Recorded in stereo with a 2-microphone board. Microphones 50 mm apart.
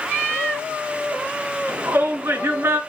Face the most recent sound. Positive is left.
turn(degrees=-60)  # may be behind; listen again after turning